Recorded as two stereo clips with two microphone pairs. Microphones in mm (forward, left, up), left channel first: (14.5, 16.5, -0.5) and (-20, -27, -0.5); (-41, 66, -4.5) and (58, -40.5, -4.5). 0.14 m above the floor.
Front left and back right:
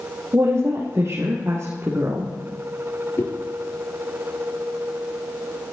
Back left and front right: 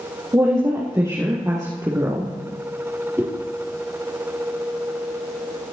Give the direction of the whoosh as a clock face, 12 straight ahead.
11 o'clock.